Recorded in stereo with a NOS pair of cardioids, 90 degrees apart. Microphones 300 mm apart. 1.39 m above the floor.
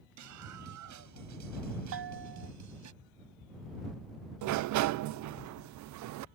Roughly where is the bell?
Ahead right.